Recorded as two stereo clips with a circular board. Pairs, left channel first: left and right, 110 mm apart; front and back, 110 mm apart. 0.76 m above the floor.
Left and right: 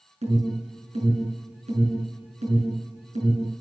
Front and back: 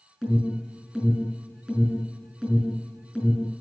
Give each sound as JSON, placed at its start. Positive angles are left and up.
{"t": 0.2, "sound": "an alarm", "azimuth_deg": -100, "distance_m": 6.5}